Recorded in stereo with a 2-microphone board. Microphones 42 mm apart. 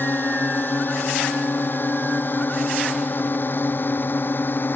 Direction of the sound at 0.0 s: 50° left (ahead or behind).